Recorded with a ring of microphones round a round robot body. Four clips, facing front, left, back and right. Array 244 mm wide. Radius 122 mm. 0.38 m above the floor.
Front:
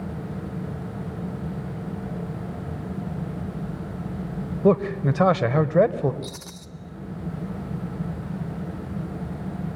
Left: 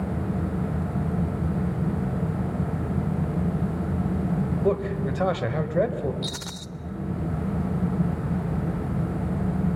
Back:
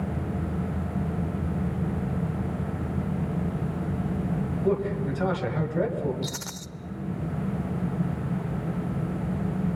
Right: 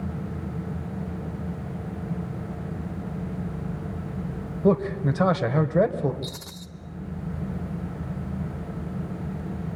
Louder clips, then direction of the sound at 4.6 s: Right 5 dB, front 7 dB; 10° right.